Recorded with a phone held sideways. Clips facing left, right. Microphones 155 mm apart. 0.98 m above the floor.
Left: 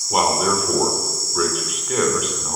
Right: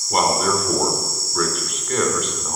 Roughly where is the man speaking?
Centre.